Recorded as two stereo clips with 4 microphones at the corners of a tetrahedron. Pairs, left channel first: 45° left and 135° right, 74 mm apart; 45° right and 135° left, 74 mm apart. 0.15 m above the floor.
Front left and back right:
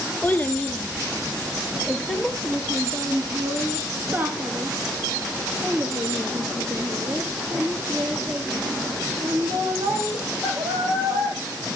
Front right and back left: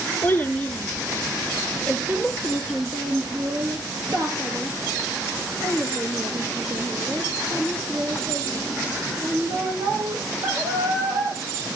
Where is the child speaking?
5° right, 1.1 m; by 11.4 s 165° left, 5 m.